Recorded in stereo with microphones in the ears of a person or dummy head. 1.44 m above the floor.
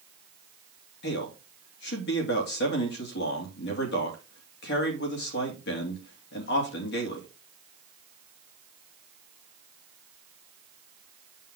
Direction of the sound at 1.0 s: 60° left (ahead or behind).